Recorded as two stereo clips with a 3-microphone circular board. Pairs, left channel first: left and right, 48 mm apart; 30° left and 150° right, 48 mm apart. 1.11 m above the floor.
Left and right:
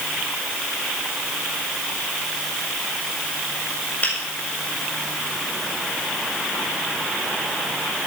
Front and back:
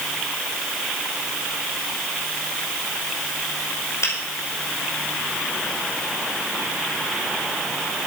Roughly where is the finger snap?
Ahead left.